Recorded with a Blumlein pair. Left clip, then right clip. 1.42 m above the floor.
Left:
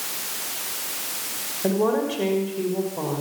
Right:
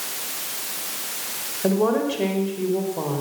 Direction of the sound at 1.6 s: 5° right.